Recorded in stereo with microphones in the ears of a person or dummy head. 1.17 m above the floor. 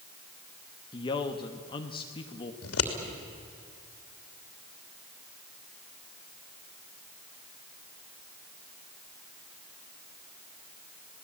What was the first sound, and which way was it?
A man speaking, 25° left (ahead or behind).